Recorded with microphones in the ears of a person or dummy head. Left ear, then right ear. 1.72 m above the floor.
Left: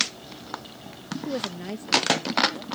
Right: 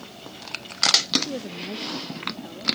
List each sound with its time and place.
1.2 s a woman speaking: 40° left (ahead or behind); by 2.6 s 15° left (ahead or behind)